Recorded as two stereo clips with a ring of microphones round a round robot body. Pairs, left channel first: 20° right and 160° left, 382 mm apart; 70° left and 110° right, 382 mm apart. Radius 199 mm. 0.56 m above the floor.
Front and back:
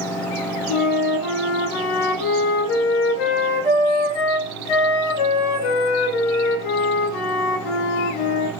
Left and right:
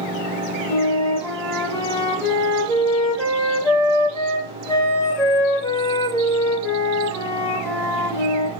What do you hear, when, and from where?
0.7 s a flute: 15° right, 0.7 m